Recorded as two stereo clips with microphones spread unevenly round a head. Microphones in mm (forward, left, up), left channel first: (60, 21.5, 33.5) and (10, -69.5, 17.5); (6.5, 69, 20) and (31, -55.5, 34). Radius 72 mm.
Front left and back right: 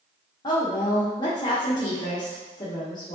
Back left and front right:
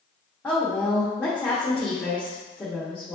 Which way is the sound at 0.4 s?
20° left.